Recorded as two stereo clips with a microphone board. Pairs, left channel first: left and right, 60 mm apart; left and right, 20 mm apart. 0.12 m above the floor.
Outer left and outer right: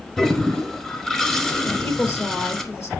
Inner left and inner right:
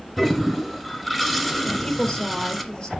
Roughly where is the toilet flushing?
Centre.